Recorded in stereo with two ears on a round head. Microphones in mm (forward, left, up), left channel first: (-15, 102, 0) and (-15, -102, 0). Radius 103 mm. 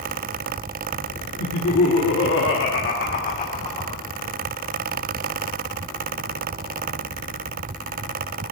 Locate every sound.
1.4 s laughter: 75° left (ahead or behind), 1.5 m; by 4.0 s 20° left (ahead or behind), 1.4 m